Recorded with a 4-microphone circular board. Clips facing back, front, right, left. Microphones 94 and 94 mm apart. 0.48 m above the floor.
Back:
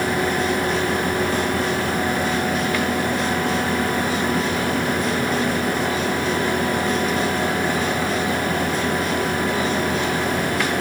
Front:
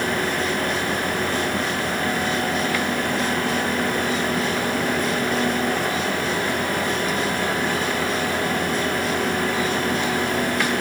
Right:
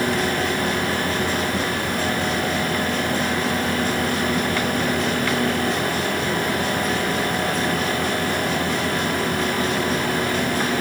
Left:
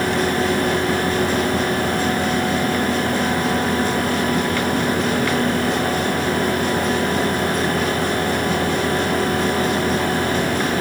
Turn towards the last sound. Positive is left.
No sound to turn to.